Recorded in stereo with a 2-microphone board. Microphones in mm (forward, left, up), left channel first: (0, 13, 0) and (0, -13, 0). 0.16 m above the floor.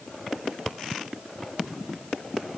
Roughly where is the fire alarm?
No fire alarm in this recording.